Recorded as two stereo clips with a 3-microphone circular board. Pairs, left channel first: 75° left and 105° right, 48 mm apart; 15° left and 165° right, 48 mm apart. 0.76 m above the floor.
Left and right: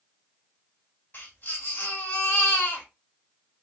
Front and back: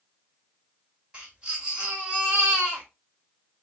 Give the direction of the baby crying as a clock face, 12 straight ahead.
8 o'clock.